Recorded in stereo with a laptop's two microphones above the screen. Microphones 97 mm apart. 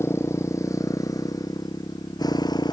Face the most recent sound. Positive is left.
turn(degrees=45)  # may be behind; listen again after turning